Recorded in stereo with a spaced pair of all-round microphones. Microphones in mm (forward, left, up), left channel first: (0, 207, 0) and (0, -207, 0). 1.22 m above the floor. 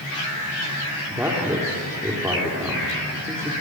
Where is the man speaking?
5° right (ahead or behind), 4 m.